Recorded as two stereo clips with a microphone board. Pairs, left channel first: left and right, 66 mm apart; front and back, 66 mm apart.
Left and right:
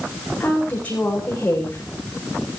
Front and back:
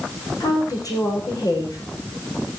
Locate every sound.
0.4 s a woman speaking: 20° left, 9 m